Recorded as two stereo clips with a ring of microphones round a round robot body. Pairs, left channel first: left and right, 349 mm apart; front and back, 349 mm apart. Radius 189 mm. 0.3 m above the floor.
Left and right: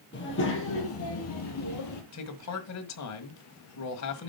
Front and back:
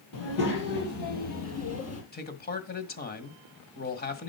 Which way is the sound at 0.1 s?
30° left.